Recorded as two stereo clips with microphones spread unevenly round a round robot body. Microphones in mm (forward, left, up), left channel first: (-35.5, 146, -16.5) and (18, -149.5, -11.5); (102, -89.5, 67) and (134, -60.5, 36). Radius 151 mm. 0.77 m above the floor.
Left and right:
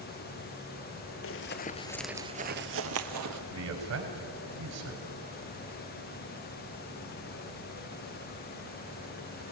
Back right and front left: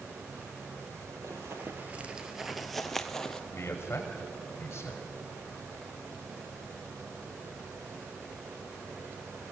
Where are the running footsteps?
125° left, 1.1 m; by 3.4 s 90° right, 1.5 m.